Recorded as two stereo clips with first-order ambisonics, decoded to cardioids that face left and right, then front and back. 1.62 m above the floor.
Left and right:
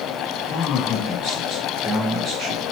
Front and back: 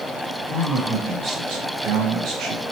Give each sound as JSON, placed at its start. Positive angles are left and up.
{"t": 0.5, "sound": "a man speaking", "azimuth_deg": 135, "distance_m": 1.3}